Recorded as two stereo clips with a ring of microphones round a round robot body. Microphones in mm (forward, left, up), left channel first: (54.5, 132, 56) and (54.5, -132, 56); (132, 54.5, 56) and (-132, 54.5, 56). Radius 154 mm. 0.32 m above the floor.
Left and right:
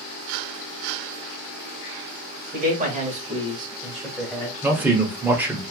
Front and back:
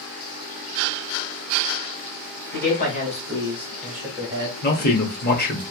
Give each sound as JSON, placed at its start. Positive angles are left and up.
{"t": 2.5, "sound": "a man speaking", "azimuth_deg": -40, "distance_m": 1.9}
{"t": 4.6, "sound": "a man speaking", "azimuth_deg": -10, "distance_m": 1.3}